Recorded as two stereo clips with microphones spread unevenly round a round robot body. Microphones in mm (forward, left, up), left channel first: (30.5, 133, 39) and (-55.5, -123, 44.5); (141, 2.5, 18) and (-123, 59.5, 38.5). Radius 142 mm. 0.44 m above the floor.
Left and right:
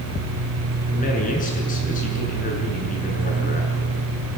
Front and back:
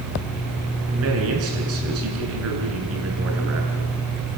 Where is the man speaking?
135° left, 6.5 m.